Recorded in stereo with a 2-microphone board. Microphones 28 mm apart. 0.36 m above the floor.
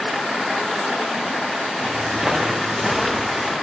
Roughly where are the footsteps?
Right.